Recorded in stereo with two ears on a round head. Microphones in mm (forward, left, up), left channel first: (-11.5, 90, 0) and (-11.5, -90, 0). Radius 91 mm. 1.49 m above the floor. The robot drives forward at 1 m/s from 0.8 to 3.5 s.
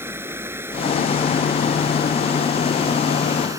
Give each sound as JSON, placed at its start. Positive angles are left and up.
{"t": 0.0, "sound": "running water", "side_deg": -10}